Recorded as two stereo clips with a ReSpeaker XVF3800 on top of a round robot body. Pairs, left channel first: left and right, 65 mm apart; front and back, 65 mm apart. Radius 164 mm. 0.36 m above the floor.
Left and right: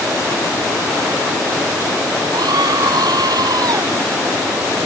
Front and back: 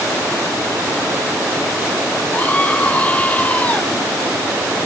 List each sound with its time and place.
2.3 s a scream: 70° right